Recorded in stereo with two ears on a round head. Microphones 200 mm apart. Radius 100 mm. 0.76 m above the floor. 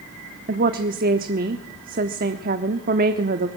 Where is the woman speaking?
40° right (ahead or behind), 1.1 m.